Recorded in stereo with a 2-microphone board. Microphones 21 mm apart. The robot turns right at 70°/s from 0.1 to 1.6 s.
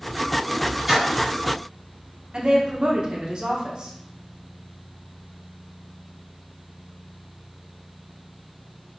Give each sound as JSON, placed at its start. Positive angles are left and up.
{"t": 0.9, "sound": "a splash", "side_deg": -15, "distance_m": 1.4}
{"t": 2.3, "sound": "a woman speaking", "side_deg": -45, "distance_m": 0.9}